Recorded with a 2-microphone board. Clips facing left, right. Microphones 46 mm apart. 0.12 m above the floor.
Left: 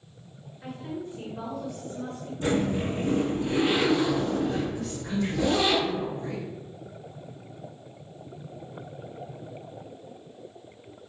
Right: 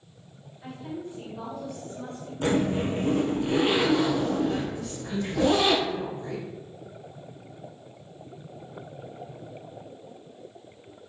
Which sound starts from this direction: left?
A woman speaking, at 0.6 s.